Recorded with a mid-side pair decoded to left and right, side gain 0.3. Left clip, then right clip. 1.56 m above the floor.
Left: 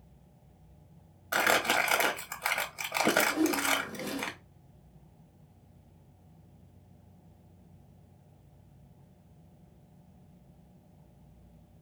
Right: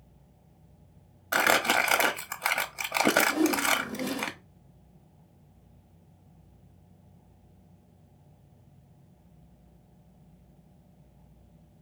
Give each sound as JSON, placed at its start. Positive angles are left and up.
{"t": 1.3, "sound": "crumpling", "azimuth_deg": -45, "distance_m": 0.9}
{"t": 3.3, "sound": "a whoosh", "azimuth_deg": -55, "distance_m": 1.0}